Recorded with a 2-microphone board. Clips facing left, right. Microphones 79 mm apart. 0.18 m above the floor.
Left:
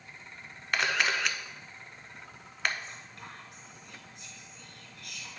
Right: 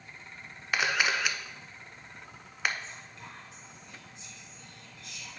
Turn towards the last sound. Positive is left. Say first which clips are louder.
# even
turn(degrees=55)  # may be behind; listen again after turning